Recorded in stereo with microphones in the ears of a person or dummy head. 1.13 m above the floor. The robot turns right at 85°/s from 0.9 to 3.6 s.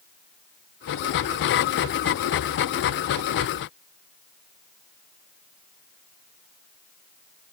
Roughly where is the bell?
I don't hear a bell.